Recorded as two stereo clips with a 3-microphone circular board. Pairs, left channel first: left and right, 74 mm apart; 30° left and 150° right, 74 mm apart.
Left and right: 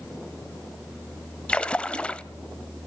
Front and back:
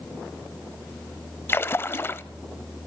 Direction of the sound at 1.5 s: 30° left.